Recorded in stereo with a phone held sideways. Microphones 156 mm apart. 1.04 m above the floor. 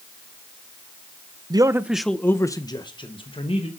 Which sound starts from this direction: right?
A man speaking, at 1.5 s.